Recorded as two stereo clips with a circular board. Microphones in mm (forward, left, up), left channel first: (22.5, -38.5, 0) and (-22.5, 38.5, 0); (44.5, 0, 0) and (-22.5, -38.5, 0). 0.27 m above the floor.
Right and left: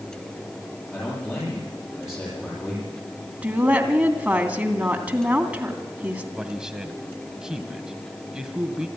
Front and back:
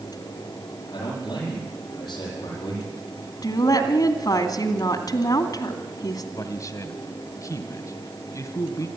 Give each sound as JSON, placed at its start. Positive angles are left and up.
{"t": 0.9, "sound": "a man speaking", "azimuth_deg": 0, "distance_m": 9.0}
{"t": 3.4, "sound": "a woman speaking", "azimuth_deg": 45, "distance_m": 2.5}
{"t": 6.4, "sound": "a man speaking", "azimuth_deg": 40, "distance_m": 1.8}